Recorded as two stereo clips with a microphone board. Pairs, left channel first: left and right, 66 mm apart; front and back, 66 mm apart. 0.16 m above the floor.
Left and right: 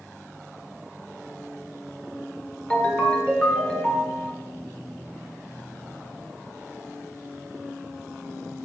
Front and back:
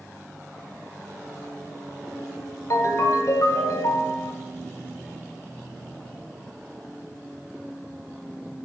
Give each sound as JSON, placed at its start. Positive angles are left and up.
{"t": 2.7, "sound": "a ringtone", "azimuth_deg": 20, "distance_m": 1.4}